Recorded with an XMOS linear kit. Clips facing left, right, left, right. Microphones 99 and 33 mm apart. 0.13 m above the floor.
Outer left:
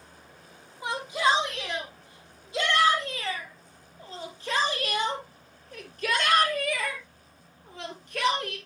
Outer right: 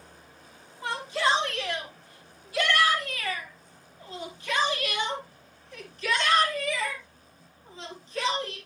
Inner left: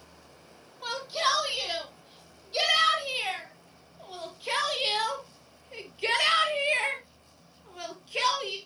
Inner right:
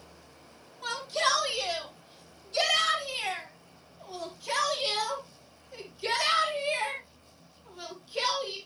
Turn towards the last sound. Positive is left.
turn(degrees=65)  # may be behind; listen again after turning